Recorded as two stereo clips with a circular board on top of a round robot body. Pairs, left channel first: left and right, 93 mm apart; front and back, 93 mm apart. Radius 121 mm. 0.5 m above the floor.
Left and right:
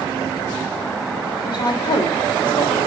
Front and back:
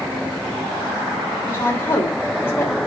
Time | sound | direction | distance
1.4 | a woman speaking | 65° left | 3 m